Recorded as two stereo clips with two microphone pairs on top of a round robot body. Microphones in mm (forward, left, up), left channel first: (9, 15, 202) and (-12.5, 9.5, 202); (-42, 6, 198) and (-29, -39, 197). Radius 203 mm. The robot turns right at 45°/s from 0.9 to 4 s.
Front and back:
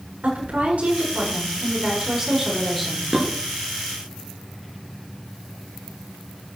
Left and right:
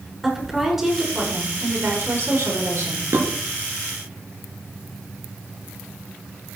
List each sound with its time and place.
0.2 s a woman speaking: 160° right, 8.5 m; by 3.1 s 60° right, 8.5 m
3.1 s dishes clattering: 100° right, 5.5 m; by 3.2 s 95° right, 5.5 m